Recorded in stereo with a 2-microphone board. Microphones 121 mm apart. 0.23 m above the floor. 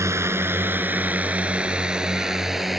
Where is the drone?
20° right (ahead or behind); by 2.8 s centre (ahead or behind).